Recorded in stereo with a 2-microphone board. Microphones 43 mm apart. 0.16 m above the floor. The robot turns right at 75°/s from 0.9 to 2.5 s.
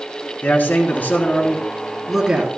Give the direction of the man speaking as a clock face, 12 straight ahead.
9 o'clock.